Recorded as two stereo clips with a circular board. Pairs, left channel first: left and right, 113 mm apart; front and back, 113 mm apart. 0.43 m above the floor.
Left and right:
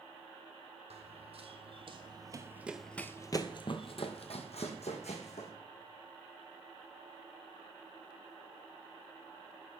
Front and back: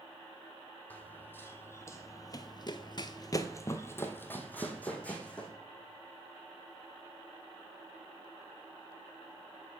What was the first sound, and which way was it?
Running footsteps, 75° right.